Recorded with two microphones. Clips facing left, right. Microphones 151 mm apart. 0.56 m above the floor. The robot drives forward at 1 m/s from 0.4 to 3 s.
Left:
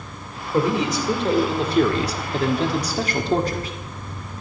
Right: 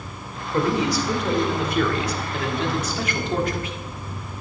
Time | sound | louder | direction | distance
0.5 | a man speaking | left 1 dB | 20° left (ahead or behind) | 2.5 m